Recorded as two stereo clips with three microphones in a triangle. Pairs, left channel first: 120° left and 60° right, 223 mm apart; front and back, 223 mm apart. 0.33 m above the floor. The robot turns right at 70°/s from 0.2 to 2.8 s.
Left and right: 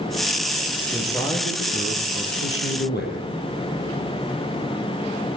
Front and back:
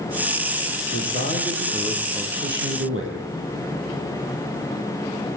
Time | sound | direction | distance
0.9 | a man speaking | 30° left | 8 m